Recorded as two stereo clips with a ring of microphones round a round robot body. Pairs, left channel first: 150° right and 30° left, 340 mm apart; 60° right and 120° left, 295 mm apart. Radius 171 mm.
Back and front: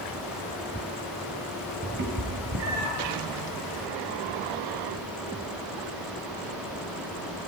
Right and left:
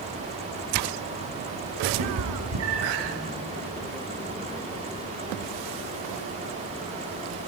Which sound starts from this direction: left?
A cat meowing, at 2.0 s.